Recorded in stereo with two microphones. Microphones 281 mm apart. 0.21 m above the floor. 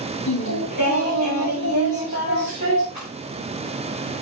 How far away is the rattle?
About 6 m.